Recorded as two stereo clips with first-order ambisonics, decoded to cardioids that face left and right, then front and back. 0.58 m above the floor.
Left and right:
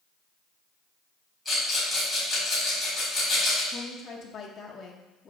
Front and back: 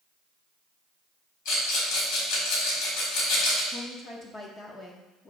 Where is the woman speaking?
50° left, 1.0 m.